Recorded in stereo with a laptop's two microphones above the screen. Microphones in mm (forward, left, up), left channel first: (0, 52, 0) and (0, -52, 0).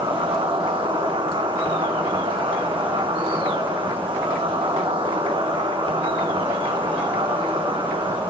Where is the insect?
55° right (ahead or behind), 4 m.